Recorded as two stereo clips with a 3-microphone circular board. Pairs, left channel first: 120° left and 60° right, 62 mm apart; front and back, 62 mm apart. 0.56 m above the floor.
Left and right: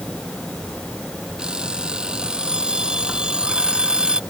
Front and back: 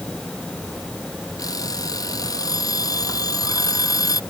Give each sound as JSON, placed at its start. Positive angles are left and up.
{"t": 1.4, "sound": "an alarm clock", "azimuth_deg": 15}